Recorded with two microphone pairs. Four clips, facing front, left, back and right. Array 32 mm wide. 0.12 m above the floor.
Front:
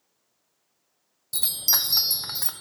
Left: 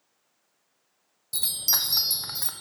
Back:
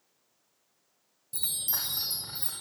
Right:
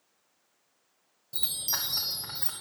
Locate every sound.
1.3 s a chime: 25° left, 1.0 m